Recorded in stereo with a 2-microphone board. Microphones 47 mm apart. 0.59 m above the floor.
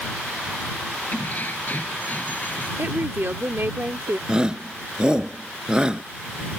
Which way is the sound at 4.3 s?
15° right (ahead or behind).